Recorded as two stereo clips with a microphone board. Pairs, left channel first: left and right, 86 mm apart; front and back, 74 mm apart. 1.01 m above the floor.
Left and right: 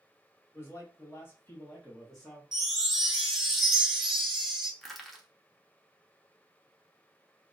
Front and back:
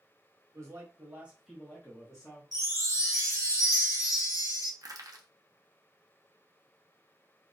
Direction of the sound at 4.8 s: Straight behind.